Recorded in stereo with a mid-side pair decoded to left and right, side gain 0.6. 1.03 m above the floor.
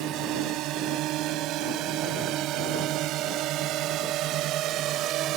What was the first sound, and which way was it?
A drone, 65° right.